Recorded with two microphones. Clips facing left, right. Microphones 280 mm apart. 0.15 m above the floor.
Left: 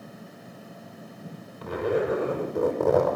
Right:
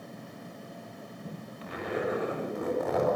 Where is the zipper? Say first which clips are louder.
Left 7 dB; 50° left (ahead or behind), 6 m.